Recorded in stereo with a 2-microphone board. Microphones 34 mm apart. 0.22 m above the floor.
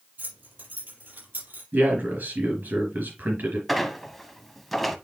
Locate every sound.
0.2 s keys jangling: 65° right (ahead or behind), 5 m; by 1.6 s 80° right, 4.5 m
1.7 s a man speaking: 65° right (ahead or behind), 4 m
3.7 s a squeak: centre (ahead or behind), 0.9 m